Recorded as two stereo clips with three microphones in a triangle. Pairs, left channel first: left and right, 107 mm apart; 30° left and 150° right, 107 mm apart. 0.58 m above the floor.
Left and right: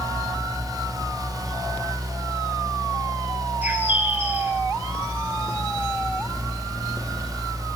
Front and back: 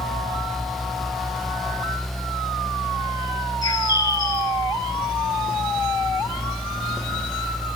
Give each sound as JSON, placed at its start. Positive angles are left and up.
{"t": 3.6, "sound": "a bird", "azimuth_deg": -20, "distance_m": 1.6}